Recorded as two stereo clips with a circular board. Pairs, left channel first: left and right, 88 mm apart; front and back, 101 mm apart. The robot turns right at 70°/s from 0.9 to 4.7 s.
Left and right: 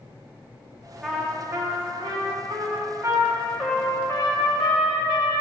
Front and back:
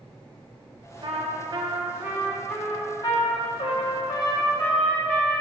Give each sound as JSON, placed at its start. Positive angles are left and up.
{"t": 1.0, "sound": "a trumpet", "azimuth_deg": 180, "distance_m": 1.0}